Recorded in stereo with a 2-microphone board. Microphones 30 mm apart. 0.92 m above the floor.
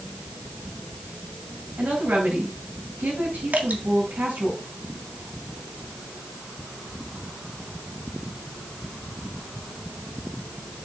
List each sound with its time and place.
1.8 s a woman speaking: 85° right, 6 m
3.5 s dripping: 75° right (ahead or behind), 1.7 m